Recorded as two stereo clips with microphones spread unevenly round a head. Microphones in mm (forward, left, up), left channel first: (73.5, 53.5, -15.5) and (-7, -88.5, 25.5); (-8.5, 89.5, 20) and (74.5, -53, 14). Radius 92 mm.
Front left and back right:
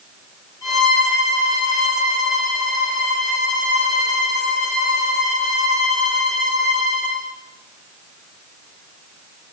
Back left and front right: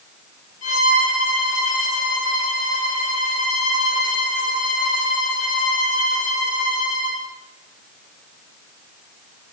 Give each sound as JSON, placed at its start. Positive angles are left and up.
{"t": 0.6, "sound": "a violin", "azimuth_deg": 135, "distance_m": 7.0}